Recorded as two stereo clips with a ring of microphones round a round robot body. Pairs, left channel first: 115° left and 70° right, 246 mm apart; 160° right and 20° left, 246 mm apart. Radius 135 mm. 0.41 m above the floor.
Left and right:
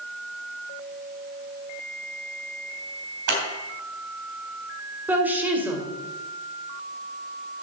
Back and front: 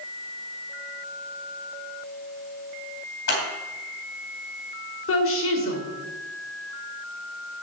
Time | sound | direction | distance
3.3 | scissors | 115° right | 3.5 m
5.1 | a woman speaking | 150° right | 2 m